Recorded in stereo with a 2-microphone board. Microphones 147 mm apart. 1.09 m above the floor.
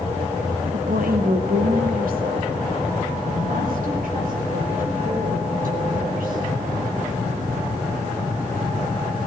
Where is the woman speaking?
75° right (ahead or behind), 1.8 m; by 6.4 s 70° right (ahead or behind), 5.5 m.